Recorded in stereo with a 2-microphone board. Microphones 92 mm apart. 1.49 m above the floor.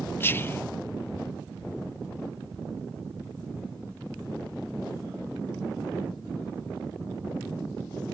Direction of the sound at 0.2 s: 25° left (ahead or behind).